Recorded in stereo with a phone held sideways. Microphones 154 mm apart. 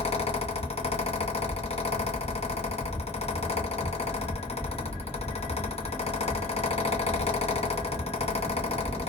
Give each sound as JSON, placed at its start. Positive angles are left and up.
{"t": 0.0, "sound": "a fan", "side_deg": 40, "distance_m": 0.7}